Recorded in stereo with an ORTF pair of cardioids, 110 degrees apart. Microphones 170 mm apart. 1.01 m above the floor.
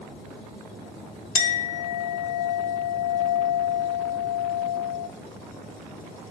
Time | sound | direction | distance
1.4 | a clink | 55° left | 1.5 m